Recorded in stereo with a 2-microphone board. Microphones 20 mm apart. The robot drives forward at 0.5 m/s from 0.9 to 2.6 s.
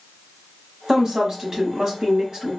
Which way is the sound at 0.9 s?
35° right (ahead or behind).